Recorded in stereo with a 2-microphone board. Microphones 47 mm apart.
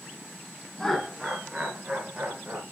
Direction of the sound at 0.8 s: 10° left (ahead or behind).